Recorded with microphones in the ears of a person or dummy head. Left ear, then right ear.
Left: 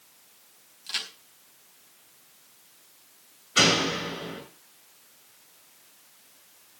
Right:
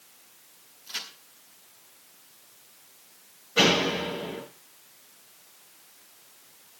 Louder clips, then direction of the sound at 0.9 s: Left 4 dB; 35° left (ahead or behind).